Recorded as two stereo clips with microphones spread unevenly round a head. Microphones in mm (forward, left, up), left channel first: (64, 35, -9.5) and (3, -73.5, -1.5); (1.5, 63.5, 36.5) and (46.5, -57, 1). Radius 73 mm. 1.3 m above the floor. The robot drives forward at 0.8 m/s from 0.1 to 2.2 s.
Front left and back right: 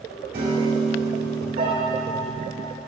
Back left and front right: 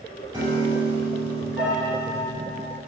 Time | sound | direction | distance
0.3 | a piano | 145° right | 2.5 m